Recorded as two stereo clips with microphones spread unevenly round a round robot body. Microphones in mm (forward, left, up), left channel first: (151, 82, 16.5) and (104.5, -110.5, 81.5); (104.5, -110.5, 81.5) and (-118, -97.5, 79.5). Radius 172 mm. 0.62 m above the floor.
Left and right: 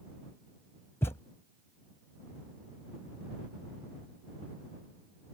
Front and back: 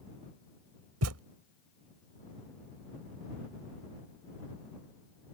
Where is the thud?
160° left.